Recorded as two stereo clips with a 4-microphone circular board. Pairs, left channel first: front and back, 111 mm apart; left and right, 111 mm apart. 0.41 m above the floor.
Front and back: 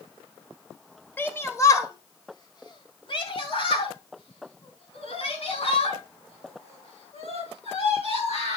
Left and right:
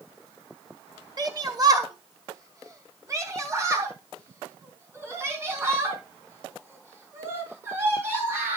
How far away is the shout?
About 1.4 m.